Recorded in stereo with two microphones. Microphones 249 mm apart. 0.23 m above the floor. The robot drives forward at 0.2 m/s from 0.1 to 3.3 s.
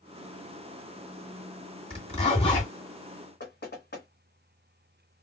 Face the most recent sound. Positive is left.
turn(degrees=45)  # may be behind; listen again after turning